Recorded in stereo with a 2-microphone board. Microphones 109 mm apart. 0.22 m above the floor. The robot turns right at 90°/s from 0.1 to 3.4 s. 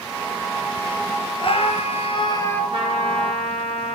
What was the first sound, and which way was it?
A scream, 55° left.